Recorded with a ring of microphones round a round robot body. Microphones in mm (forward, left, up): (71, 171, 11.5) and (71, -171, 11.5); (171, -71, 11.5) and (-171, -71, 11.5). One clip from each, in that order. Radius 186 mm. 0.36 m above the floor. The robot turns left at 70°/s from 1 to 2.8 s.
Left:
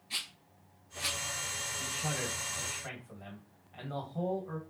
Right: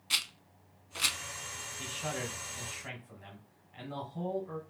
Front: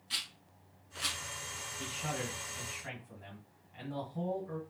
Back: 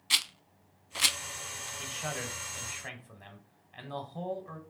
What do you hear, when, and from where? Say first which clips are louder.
0.1 s a rattle: right 6 dB, back 9 dB; 135° right, 0.5 m; by 1.2 s 145° right, 0.5 m
1.8 s a man speaking: right 1 dB, back 1 dB; 110° right, 1.7 m; by 4.6 s straight behind, 1.7 m